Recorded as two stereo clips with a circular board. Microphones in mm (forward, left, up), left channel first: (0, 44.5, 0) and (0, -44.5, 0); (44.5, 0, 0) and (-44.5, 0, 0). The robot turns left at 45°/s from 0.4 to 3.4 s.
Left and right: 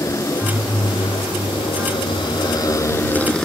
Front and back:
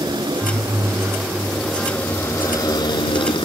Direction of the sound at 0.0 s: 145° left.